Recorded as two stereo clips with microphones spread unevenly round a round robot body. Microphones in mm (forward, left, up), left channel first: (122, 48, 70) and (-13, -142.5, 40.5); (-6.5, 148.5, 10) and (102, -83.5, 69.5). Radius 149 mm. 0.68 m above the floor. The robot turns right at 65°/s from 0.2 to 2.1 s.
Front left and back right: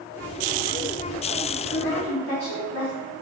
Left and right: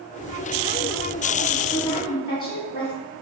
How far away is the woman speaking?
About 1.8 m.